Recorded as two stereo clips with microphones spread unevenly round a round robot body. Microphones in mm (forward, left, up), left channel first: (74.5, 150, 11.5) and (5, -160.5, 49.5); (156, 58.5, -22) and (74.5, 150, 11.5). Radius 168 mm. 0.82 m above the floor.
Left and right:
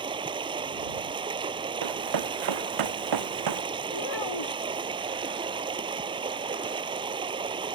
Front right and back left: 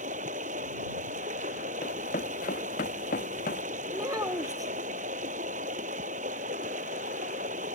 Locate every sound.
0.0 s running water: straight behind
1.8 s running footsteps: 95° right; by 3.6 s 90° right
3.9 s a child speaking: 70° left